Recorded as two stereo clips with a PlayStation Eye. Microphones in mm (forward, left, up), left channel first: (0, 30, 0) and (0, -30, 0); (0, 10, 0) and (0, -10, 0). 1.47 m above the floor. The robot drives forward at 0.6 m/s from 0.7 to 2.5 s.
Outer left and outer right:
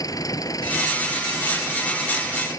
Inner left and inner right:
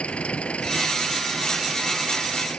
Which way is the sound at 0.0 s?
85° left.